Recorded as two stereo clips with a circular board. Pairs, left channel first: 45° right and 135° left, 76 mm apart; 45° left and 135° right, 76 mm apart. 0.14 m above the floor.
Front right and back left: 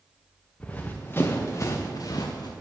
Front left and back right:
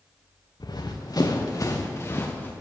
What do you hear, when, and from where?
0.6 s running footsteps: 25° left, 1.3 m; by 2.5 s 20° right, 1.3 m